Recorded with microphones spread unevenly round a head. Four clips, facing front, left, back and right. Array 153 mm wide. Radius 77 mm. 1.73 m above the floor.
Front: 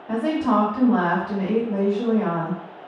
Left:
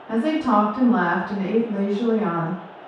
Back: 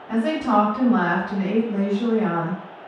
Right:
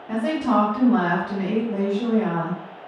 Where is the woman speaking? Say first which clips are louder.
Left 2 dB, even; 15° left, 1.4 m.